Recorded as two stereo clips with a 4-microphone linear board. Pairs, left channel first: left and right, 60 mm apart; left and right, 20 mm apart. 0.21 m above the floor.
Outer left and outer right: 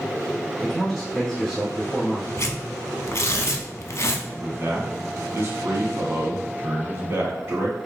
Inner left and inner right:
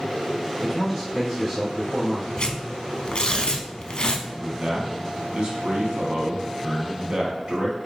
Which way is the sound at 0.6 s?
5° left (ahead or behind).